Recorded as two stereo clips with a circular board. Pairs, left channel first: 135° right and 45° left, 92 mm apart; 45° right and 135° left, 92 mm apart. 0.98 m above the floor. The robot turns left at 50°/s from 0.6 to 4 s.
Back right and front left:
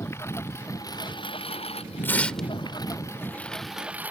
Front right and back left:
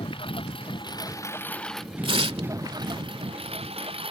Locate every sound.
0.0 s a lawn mower: 70° right; by 4.1 s 120° left
2.0 s tearing paper: 160° left; by 2.5 s 135° left